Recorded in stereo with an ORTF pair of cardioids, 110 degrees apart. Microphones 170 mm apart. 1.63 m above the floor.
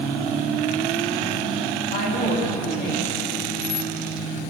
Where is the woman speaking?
70° left, 5.5 m.